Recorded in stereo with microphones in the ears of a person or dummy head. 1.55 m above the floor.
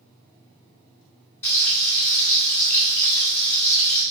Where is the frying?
15° left (ahead or behind), 1.1 m.